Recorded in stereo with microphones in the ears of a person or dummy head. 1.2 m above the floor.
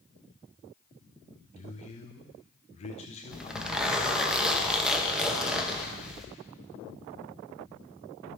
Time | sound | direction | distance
1.6 | a man speaking | 35° left (ahead or behind) | 0.8 m
3.3 | a zipper | 10° right (ahead or behind) | 1.0 m